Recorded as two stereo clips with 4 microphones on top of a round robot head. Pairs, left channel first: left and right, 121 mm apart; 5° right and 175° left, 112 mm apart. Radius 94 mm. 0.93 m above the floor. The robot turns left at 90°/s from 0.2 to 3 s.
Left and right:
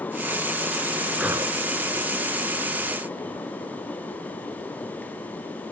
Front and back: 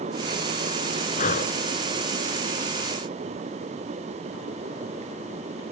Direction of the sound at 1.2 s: Straight ahead.